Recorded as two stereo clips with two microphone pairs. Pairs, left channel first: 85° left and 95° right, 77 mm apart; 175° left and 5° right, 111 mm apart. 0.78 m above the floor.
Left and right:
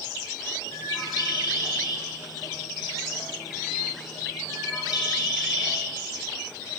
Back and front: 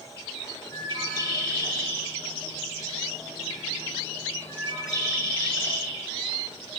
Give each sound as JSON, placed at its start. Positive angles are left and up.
{"t": 0.7, "sound": "a bird", "azimuth_deg": 120, "distance_m": 6.0}